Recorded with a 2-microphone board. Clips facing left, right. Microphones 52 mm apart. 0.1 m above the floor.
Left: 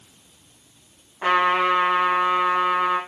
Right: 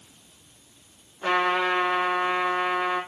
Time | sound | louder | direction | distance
1.2 | a trumpet | left 4 dB | 75° left (ahead or behind) | 8 m